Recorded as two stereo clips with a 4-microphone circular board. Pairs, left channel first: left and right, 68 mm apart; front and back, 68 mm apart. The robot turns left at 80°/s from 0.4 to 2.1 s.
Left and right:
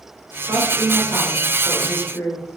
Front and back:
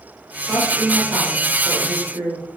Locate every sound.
0.4 s a woman speaking: 75° right, 8.5 m; by 2.5 s 150° left, 8.5 m